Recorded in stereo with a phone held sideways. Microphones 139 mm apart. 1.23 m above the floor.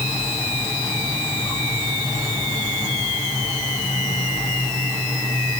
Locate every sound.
Only background noise.